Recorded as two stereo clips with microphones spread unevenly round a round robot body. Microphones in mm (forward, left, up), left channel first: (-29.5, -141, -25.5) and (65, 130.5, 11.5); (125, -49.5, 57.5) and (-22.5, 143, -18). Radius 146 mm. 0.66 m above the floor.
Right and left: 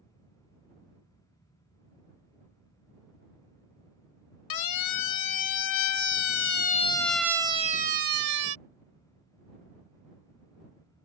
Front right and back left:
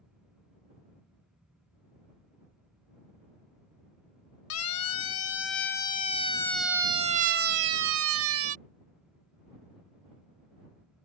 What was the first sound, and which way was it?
A siren, 100° right.